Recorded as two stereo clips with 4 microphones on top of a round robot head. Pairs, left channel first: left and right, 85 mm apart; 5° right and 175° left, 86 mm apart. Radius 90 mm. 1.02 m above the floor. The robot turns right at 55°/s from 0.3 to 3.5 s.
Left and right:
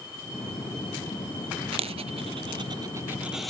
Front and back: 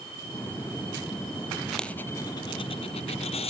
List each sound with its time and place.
1.7 s a dropped coin: 95° right; by 3.5 s 5° left